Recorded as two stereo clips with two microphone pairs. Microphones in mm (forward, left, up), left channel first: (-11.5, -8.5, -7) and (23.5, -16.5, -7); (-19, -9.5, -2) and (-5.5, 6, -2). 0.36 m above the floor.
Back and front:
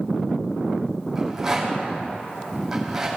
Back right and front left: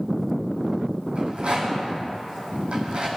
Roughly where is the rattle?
Ahead left.